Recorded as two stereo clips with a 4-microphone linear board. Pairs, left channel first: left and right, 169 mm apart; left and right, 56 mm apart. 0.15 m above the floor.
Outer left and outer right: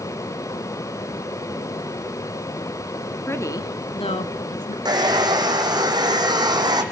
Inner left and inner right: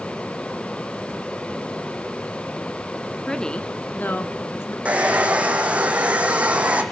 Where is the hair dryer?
25° right (ahead or behind), 2 m.